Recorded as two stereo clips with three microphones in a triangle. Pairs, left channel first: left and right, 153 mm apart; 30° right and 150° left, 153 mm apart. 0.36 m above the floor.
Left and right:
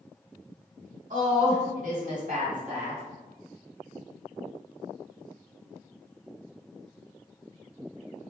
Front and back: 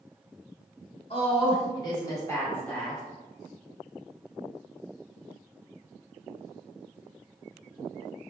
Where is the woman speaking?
75° right, 1.9 m; by 3.0 s 120° right, 1.5 m.